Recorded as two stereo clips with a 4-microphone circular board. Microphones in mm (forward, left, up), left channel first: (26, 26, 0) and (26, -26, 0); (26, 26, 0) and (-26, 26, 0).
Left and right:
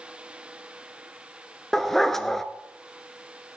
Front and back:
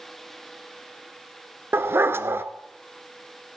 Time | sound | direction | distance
1.7 | a dog barking | 170° left | 0.8 m